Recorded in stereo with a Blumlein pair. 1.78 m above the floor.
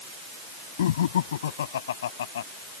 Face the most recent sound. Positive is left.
turn(degrees=60)